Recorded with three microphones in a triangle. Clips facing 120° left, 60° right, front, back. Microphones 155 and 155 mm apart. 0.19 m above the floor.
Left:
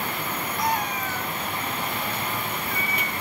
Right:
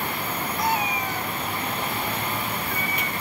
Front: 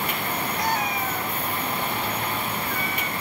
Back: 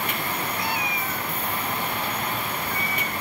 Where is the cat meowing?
30° left, 1.0 m; by 3.1 s 25° right, 1.8 m.